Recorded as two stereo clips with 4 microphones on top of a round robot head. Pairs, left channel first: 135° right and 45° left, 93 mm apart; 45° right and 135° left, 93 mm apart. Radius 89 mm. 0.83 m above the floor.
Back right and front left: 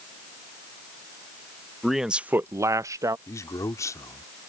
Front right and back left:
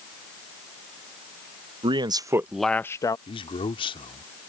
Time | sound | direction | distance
1.8 | a man speaking | 135° left | ?
3.3 | a man speaking | 75° right | ?